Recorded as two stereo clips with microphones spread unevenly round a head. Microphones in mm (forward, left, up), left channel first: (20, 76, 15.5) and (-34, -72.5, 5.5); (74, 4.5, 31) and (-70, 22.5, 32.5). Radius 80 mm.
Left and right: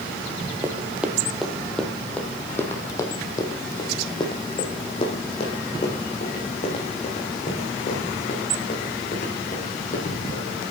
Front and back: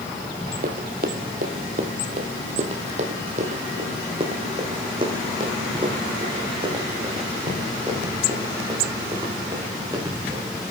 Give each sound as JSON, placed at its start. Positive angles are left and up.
{"t": 0.6, "sound": "running footsteps", "azimuth_deg": 175, "distance_m": 2.0}